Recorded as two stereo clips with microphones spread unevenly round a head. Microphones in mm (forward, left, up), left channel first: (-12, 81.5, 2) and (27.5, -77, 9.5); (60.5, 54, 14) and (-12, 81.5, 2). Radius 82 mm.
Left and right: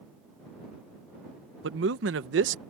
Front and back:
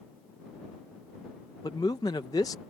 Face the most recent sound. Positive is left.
turn(degrees=-85)